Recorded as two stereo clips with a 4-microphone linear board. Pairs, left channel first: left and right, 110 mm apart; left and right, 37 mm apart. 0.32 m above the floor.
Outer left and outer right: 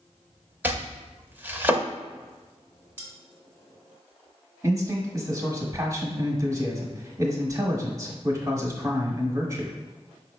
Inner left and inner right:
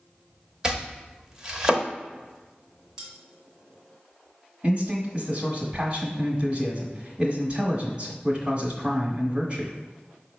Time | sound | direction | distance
0.6 | chopping | 15° right (ahead or behind) | 0.6 m
3.0 | cutlery clinking | 15° right (ahead or behind) | 1.9 m
4.6 | a man speaking | 30° right (ahead or behind) | 1.1 m